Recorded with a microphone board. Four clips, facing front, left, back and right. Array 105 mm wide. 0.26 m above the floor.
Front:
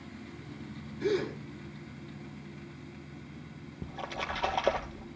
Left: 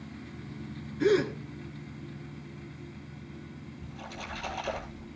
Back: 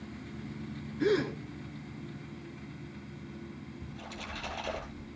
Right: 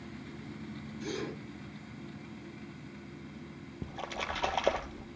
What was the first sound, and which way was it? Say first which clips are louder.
A gasp: left 14 dB, back 2 dB; 115° left.